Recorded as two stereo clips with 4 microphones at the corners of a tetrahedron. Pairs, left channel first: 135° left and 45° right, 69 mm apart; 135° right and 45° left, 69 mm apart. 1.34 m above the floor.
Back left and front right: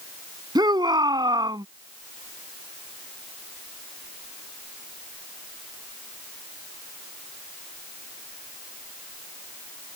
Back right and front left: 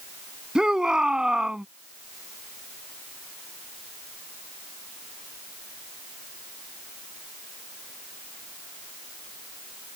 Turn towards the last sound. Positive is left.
turn(degrees=-35)